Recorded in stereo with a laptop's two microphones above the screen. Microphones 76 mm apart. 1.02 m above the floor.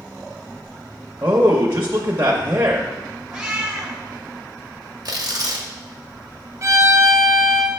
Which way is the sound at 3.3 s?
10° right (ahead or behind).